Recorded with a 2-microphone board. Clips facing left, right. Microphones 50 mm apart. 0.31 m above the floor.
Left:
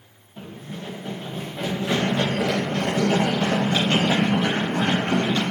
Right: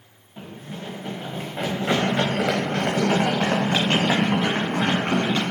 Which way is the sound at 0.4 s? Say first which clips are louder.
Even; 20° right (ahead or behind).